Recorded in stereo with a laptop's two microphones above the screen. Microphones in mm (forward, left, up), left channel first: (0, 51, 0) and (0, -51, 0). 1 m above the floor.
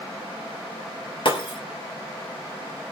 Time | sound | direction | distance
1.2 | breaking glass | 55° left (ahead or behind) | 2 m